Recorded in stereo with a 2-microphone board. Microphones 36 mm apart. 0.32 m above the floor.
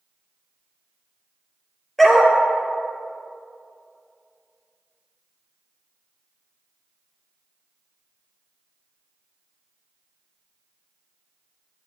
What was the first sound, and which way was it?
A dog barking, 5° left (ahead or behind).